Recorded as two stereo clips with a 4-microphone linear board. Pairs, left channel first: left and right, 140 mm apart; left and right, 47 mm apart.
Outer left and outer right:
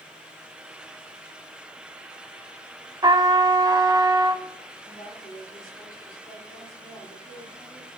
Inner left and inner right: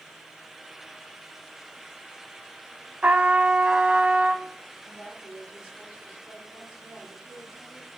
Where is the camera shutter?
No camera shutter in this recording.